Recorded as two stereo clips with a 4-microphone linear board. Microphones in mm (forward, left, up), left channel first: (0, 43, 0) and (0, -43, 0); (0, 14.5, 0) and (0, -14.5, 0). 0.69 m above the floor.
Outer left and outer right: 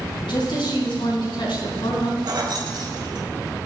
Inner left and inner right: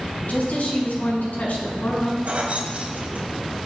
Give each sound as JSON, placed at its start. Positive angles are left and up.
{"t": 0.2, "sound": "a woman speaking", "side_deg": 85, "distance_m": 5.5}
{"t": 2.2, "sound": "keys jangling", "side_deg": -60, "distance_m": 2.5}